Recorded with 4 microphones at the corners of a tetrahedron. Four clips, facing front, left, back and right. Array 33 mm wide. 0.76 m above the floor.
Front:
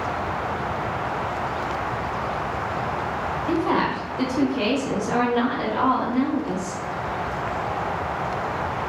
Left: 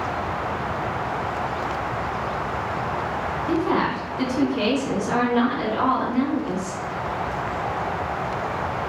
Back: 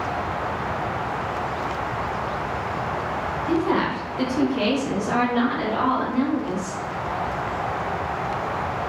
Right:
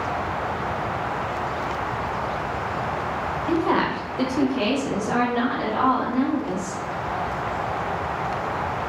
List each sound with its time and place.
3.5 s a woman speaking: 80° right, 1.2 m; by 6.8 s 155° left, 2.5 m